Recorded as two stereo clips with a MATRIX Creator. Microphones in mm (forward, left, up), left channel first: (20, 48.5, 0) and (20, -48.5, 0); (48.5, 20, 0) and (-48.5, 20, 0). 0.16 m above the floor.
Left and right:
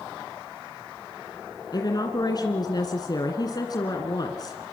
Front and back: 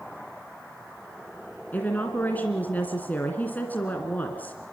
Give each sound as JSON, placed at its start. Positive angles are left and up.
{"t": 1.7, "sound": "a woman speaking", "azimuth_deg": 70, "distance_m": 2.0}